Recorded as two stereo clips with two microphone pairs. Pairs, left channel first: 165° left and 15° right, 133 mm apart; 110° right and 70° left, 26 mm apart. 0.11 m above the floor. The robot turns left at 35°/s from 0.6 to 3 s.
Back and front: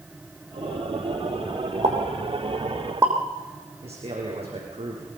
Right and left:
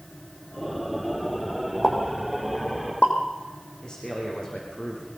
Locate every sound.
1.8 s a pop: 45° right, 5 m; by 3.1 s 85° right, 5 m
3.8 s a man speaking: 50° right, 7 m